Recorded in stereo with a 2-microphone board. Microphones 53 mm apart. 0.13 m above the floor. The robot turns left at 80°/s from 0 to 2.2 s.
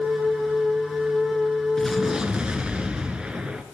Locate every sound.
1.8 s an explosion: 10° left, 1.8 m; by 3.6 s 20° right, 1.8 m